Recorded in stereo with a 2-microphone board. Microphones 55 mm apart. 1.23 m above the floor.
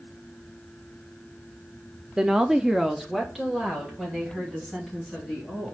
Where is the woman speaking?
10° right (ahead or behind), 0.5 m; by 5.7 s centre (ahead or behind), 4 m.